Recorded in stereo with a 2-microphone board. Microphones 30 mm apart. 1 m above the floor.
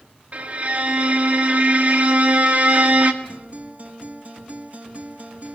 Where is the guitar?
50° right (ahead or behind), 3.5 m.